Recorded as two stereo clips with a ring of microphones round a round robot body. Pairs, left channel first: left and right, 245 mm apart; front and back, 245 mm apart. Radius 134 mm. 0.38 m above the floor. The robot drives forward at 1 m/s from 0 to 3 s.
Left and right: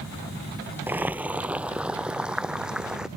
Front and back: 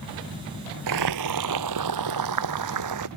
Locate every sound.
0.9 s boiling: 175° right; by 3.1 s straight behind